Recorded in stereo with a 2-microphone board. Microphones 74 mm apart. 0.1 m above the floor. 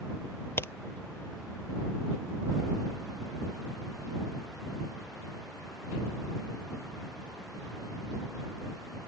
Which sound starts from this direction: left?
A crack, at 0.6 s.